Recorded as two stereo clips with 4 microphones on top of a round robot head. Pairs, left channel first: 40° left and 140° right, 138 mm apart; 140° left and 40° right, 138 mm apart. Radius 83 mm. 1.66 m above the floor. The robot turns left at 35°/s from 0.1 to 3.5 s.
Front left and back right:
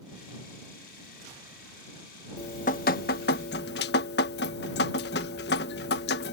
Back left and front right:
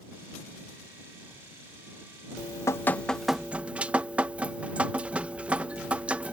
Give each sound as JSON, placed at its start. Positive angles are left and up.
{"t": 2.4, "sound": "dripping", "azimuth_deg": 80}